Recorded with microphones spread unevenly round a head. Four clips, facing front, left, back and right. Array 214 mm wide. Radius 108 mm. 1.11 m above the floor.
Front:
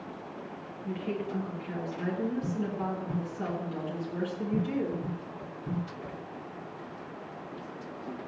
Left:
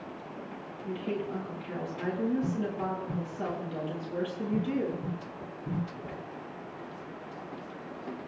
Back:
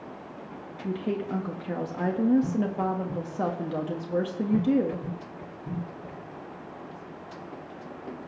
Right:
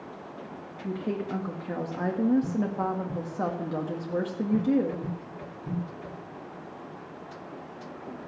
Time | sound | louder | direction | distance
0.8 | a woman speaking | right 2 dB, back 4 dB | 135° right | 1.7 m